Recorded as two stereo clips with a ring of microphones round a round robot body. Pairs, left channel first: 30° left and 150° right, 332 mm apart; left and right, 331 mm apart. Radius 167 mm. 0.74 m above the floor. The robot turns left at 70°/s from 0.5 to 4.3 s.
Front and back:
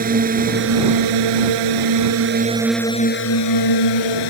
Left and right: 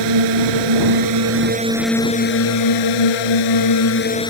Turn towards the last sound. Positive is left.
turn(degrees=10)